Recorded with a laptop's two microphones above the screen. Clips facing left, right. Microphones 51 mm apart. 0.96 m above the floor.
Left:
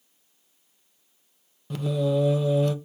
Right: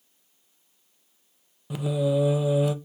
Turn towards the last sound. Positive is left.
turn(degrees=-10)  # may be behind; listen again after turning